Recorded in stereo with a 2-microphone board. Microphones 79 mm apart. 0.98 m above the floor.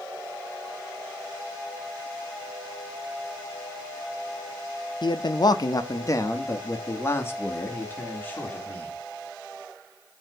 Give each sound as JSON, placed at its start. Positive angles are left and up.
{"t": 5.0, "sound": "a man speaking", "side_deg": 60, "distance_m": 0.6}